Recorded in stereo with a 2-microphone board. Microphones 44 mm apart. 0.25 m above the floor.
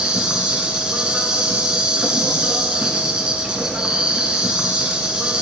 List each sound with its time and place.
0.0 s an insect: 20° right (ahead or behind), 0.8 m